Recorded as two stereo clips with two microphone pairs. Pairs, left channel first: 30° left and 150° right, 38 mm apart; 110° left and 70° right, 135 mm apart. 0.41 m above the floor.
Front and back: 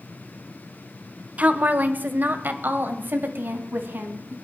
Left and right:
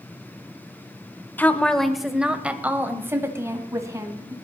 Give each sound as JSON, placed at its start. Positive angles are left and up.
{"t": 1.4, "sound": "a woman speaking", "azimuth_deg": -175, "distance_m": 1.0}